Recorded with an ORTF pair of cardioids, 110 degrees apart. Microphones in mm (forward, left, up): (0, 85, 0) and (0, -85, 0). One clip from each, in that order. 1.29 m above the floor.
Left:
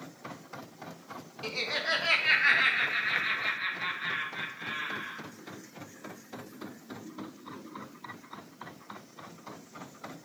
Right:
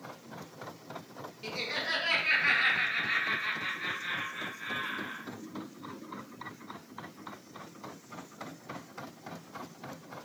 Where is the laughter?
25° left, 1.0 m; by 5.2 s 45° left, 3 m.